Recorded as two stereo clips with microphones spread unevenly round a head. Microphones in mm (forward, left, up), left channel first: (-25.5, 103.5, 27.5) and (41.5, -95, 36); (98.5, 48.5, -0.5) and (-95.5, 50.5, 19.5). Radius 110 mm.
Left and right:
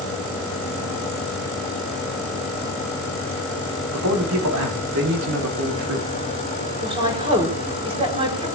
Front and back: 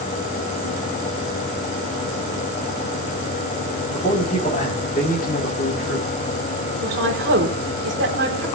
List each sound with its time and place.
3.9 s a man speaking: 65° right, 4 m; by 6.1 s 45° right, 3 m
6.8 s a woman speaking: 135° right, 4 m